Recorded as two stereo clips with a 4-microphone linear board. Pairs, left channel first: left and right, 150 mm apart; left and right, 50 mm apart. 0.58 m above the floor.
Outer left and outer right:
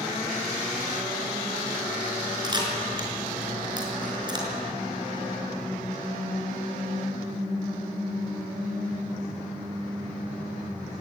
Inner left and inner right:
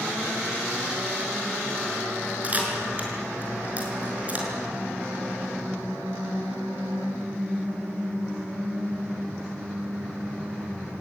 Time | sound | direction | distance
2.4 | a camera shutter | 30° right (ahead or behind) | 5 m